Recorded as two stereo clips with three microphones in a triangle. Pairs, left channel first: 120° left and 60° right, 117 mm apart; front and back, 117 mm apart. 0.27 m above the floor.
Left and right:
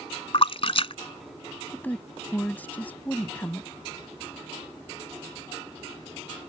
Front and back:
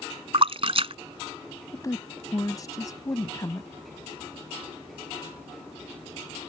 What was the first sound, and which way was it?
A splash, 150° left.